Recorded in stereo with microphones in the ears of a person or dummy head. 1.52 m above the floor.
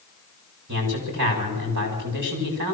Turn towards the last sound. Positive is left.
turn(degrees=-60)  # may be behind; listen again after turning